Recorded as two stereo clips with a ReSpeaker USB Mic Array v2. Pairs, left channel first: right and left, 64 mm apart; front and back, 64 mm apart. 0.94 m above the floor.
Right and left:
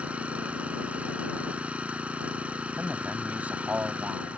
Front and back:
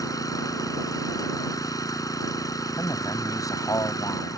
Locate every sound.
0.0 s an engine running: 20° left
2.8 s a man speaking: 25° left